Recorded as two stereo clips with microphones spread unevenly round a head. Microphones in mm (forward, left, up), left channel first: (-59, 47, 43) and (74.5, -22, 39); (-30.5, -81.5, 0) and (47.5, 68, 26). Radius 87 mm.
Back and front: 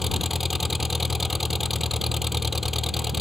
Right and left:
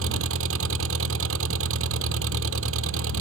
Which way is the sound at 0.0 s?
60° left.